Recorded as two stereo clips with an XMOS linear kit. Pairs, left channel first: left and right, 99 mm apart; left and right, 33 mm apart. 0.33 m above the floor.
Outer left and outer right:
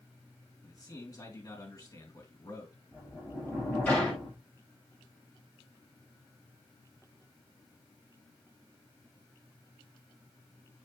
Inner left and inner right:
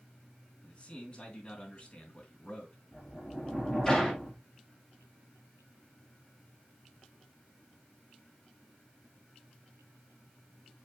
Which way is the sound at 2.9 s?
15° left (ahead or behind).